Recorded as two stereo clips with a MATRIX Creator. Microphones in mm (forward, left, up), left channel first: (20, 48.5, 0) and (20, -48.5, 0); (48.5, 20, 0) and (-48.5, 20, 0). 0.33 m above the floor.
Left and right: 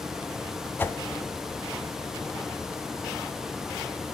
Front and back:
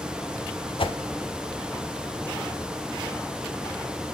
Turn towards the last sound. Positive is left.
turn(degrees=20)